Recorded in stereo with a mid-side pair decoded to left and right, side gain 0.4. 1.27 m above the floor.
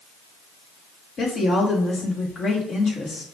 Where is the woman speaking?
65° left, 1.8 m.